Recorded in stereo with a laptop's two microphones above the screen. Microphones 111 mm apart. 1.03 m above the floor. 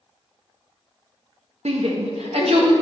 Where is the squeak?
I don't hear a squeak.